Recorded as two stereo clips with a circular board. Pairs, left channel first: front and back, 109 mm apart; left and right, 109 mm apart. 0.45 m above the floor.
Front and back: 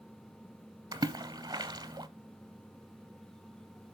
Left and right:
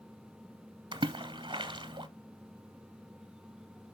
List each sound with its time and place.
0.9 s a splash: 130° right, 0.7 m